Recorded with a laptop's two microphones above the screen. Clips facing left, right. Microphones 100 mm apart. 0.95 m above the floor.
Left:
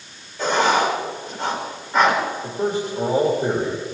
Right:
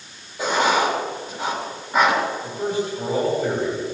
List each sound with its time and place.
0.4 s writing: 10° right (ahead or behind), 4.5 m
2.4 s a man speaking: 30° left (ahead or behind), 3.5 m